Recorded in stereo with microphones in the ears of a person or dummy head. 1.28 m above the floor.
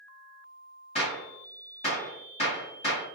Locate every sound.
0.9 s a gunshot: 30° left (ahead or behind), 1.1 m